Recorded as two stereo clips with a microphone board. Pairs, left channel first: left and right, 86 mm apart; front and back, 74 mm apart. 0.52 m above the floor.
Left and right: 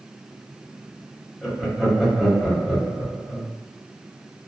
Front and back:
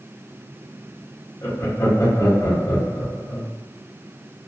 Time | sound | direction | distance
1.4 | laughter | 5° right | 1.2 m